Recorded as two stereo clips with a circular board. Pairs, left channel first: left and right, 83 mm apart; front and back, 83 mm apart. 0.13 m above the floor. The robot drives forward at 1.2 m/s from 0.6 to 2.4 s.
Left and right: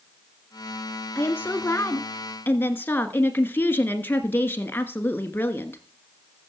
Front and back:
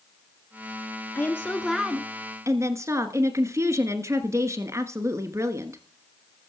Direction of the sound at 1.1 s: 35° left.